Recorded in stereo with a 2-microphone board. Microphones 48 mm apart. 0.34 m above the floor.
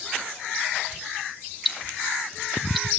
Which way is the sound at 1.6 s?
5° right (ahead or behind).